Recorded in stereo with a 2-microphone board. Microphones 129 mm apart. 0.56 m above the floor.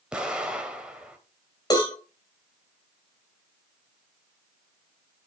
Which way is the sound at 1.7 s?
35° left (ahead or behind).